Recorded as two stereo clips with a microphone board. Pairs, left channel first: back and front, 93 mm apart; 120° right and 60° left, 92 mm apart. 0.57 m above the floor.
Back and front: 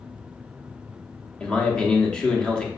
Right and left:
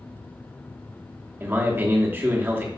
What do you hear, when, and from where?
1.4 s a man speaking: 110° left, 0.8 m